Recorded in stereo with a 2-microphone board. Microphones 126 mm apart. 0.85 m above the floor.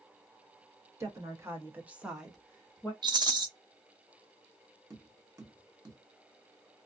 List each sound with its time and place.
1.0 s a woman speaking: 25° right (ahead or behind), 1.2 m; by 2.9 s 15° left (ahead or behind), 0.8 m
3.0 s a rattle: 35° right (ahead or behind), 0.6 m
4.9 s tapping: 25° right (ahead or behind), 0.9 m